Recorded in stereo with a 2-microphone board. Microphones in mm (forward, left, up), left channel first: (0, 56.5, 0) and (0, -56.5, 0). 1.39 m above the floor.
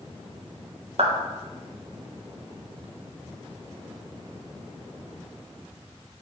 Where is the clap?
65° right (ahead or behind), 1.0 m.